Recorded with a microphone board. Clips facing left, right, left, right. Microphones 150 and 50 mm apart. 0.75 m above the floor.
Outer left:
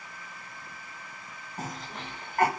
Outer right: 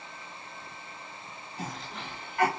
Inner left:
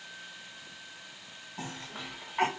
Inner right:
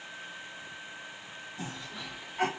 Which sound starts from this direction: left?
A cough, at 1.6 s.